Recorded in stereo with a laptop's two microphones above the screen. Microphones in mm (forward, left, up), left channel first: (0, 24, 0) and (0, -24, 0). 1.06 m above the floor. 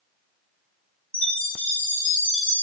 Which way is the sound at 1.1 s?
25° left (ahead or behind).